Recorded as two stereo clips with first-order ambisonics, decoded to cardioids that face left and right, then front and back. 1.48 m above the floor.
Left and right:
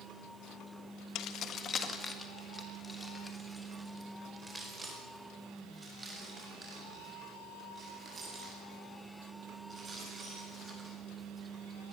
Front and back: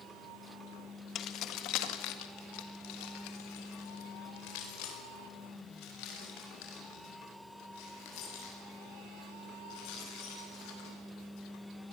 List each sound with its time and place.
1.1 s keys jangling: 50° left, 1.4 m; by 10.9 s 15° right, 12.5 m